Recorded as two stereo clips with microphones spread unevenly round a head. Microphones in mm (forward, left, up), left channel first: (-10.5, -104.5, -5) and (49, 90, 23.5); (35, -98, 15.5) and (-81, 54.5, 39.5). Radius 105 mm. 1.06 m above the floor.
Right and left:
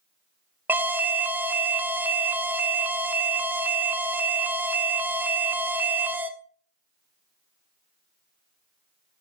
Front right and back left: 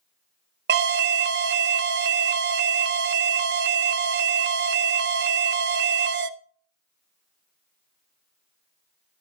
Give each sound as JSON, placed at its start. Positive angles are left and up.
{"t": 0.7, "sound": "an alarm", "azimuth_deg": 160, "distance_m": 0.7}